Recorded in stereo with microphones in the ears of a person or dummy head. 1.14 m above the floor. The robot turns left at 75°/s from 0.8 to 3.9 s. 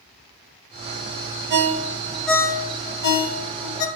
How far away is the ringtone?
About 0.5 m.